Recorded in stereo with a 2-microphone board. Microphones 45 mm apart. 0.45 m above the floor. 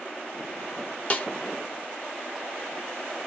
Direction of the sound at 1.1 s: 30° left (ahead or behind).